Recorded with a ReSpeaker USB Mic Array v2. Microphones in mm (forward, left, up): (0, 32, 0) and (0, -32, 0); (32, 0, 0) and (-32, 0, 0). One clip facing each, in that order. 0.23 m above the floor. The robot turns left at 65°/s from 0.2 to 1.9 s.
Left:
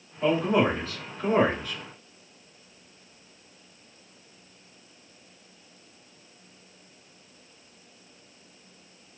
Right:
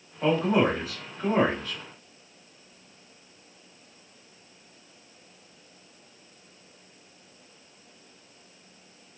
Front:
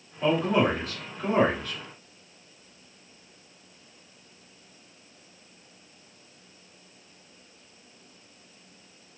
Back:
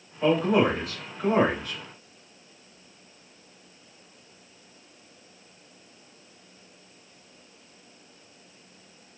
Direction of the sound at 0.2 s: 105° right.